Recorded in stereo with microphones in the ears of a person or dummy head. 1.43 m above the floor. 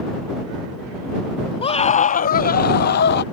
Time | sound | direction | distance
1.6 | a scream | 30° left (ahead or behind) | ?